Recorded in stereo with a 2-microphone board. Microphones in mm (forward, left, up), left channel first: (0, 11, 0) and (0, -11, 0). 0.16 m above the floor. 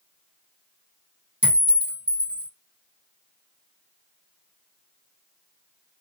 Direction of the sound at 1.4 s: 65° right (ahead or behind).